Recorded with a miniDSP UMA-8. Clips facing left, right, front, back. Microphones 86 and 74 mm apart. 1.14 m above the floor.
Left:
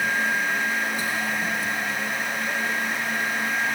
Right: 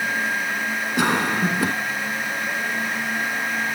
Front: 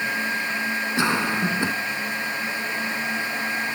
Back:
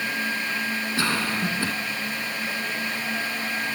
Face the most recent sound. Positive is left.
turn(degrees=-70)